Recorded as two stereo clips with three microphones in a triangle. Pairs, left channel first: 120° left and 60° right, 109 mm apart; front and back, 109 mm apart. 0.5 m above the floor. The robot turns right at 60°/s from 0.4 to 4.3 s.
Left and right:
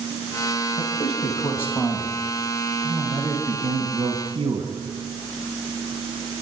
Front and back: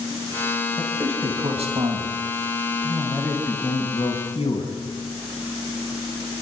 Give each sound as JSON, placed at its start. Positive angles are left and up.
{"t": 0.8, "sound": "a man speaking", "azimuth_deg": 105, "distance_m": 4.0}